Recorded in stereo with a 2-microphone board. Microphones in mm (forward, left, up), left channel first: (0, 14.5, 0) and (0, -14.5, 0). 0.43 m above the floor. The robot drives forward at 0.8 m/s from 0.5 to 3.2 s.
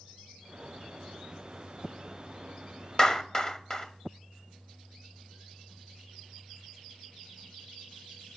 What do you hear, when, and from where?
3.0 s a clap: 20° left (ahead or behind), 2.0 m